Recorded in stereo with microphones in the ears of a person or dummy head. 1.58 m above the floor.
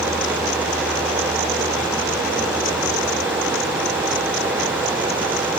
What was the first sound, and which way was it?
Only background noise.